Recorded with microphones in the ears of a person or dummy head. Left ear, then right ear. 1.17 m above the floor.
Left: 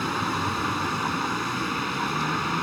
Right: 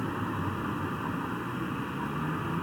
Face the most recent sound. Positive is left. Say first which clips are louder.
# left 8 dB
turn(degrees=80)